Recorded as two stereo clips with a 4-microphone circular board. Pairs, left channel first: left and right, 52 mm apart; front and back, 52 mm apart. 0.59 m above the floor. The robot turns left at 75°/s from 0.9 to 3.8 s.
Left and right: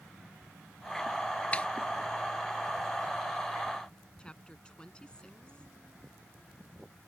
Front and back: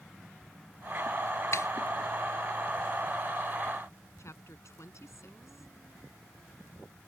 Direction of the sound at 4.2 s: 20° left.